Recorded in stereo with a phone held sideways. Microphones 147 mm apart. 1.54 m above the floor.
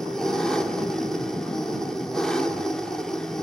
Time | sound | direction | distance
0.0 | an engine running | 5° left (ahead or behind) | 1.7 m